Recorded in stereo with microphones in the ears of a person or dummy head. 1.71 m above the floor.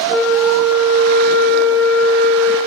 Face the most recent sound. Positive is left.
turn(degrees=0)  # may be behind; listen again after turning